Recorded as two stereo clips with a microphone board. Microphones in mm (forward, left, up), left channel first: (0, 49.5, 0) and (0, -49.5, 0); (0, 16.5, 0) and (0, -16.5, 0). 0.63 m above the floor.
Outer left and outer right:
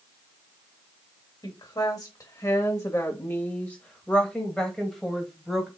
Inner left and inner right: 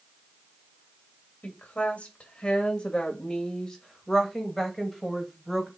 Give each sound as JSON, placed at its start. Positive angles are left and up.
{"t": 1.4, "sound": "a woman speaking", "side_deg": 45, "distance_m": 2.5}